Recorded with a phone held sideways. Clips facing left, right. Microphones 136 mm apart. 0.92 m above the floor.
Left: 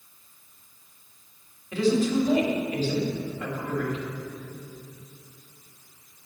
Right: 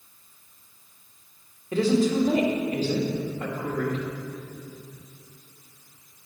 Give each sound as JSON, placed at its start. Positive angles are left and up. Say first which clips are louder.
{"t": 1.7, "sound": "a woman speaking", "louder": "right 1 dB", "side_deg": -40, "distance_m": 2.0}